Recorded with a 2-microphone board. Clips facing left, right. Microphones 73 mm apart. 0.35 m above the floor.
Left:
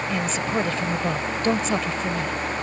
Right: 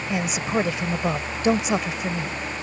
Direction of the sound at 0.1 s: 15° right (ahead or behind).